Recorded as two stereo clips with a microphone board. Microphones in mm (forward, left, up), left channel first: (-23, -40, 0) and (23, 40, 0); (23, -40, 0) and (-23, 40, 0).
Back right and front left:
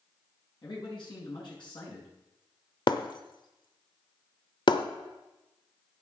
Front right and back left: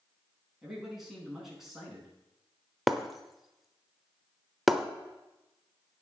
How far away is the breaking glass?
About 0.8 m.